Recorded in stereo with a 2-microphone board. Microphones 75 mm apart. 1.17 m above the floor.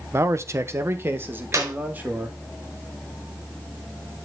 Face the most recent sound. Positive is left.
turn(degrees=-45)  # may be behind; listen again after turning